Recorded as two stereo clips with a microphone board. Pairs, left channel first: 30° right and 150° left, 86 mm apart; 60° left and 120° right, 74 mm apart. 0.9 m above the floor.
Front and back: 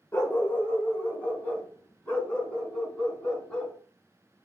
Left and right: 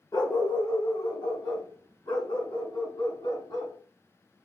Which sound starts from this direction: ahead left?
A dog barking, at 0.1 s.